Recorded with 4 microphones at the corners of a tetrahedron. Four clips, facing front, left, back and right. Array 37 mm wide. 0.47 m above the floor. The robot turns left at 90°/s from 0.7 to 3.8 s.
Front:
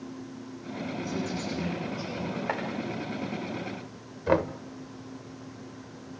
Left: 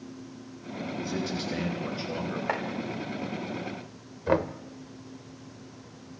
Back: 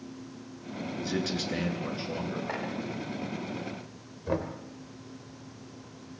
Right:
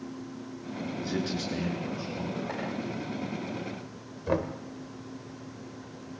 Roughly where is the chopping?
Ahead left.